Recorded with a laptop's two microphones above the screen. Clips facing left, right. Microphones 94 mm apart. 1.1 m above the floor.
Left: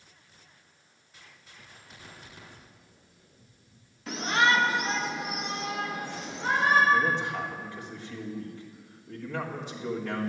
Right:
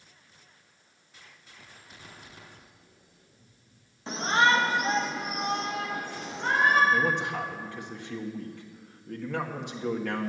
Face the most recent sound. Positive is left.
turn(degrees=-65)  # may be behind; listen again after turning